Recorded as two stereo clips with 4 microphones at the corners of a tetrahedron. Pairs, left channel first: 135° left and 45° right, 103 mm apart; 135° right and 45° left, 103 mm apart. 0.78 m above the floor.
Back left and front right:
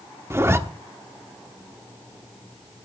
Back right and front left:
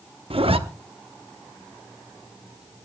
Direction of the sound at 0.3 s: 20° left.